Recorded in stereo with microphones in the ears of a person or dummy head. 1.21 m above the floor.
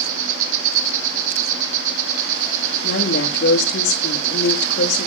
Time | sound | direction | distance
0.0 | an insect | 50° right (ahead or behind) | 2.5 m
2.8 | a woman speaking | 70° left (ahead or behind) | 3 m